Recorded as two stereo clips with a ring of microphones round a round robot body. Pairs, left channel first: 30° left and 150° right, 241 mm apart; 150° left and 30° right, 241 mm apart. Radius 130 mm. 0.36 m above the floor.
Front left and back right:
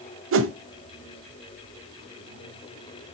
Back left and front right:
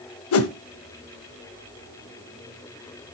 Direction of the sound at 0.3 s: 175° left.